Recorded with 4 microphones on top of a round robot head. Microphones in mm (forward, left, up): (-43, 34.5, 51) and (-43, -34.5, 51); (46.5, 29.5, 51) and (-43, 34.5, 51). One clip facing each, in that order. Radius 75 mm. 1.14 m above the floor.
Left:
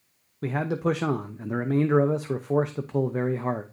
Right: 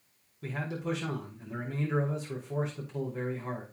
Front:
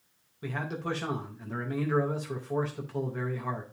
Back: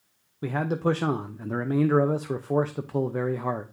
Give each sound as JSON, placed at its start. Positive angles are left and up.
{"t": 0.4, "sound": "a man speaking", "azimuth_deg": 125, "distance_m": 0.6}